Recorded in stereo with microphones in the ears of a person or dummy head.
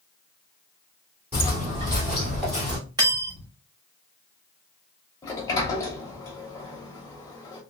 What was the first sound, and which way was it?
Footsteps, 15° right (ahead or behind).